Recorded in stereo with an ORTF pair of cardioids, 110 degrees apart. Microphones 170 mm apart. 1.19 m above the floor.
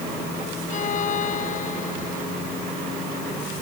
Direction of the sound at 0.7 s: 50° left.